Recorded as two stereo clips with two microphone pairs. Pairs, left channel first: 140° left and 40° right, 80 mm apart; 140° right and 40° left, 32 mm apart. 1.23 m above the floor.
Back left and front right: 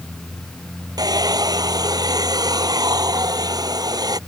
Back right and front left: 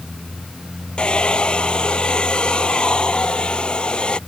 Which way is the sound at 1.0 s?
80° right.